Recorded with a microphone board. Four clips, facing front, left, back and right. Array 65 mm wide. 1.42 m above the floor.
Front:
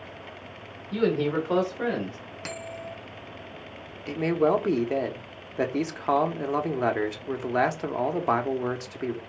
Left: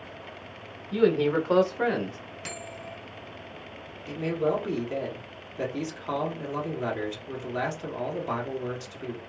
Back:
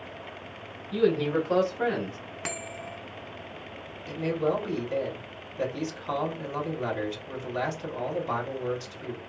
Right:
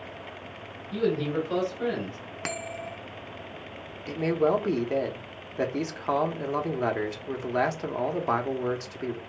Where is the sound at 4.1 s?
25° right, 0.9 m.